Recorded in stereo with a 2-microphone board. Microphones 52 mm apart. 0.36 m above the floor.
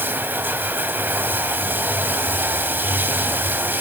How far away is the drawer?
I don't hear a drawer.